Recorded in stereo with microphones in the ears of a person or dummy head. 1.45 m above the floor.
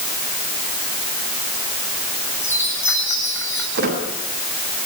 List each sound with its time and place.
2.4 s a chime: 10° left (ahead or behind), 7 m
3.8 s a squeak: 80° right, 7.5 m